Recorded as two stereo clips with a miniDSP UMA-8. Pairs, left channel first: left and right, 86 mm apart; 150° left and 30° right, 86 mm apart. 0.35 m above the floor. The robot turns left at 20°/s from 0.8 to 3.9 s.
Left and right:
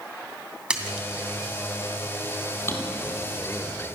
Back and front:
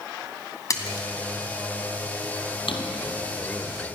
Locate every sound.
0.7 s a splash: 170° right, 2.5 m; by 1.1 s 175° right, 2.5 m
2.7 s a drawer: 150° left, 2.5 m; by 4.0 s 125° left, 2.5 m